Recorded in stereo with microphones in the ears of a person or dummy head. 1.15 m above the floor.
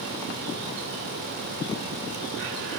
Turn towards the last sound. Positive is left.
No sound to turn to.